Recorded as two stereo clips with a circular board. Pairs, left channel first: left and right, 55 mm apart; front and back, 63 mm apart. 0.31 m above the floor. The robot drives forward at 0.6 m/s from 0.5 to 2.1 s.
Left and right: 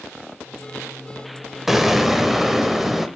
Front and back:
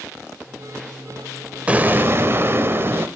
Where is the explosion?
170° right, 0.7 m; by 3.1 s 175° right, 0.8 m.